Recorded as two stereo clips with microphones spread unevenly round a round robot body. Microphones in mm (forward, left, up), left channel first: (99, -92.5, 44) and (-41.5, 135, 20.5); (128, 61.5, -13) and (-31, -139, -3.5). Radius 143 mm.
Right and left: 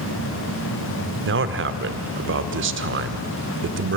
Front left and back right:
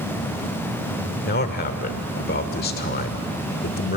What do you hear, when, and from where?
1.2 s a man speaking: 100° left, 1.3 m